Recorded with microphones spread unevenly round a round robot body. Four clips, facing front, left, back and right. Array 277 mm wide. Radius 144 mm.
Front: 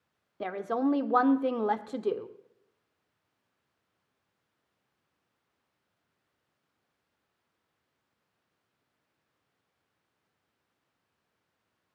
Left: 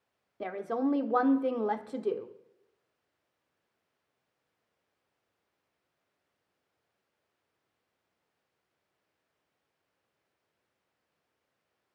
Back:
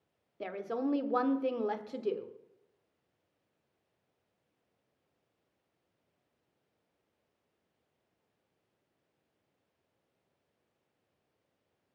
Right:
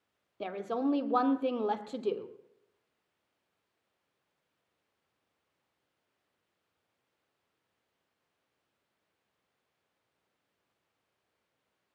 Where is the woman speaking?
15° left, 1.2 m.